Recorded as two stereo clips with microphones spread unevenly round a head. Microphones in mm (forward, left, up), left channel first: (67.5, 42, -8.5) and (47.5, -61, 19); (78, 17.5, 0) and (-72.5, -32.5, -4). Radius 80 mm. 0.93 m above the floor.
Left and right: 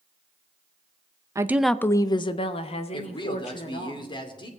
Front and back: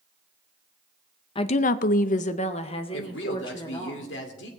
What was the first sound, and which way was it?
A woman speaking, 35° right.